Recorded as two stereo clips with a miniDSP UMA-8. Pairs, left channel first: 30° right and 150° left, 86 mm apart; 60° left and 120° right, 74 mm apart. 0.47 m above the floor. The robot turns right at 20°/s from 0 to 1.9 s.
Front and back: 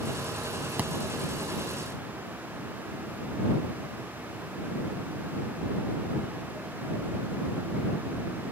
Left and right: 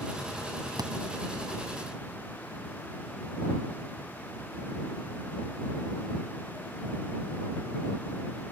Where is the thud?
140° right.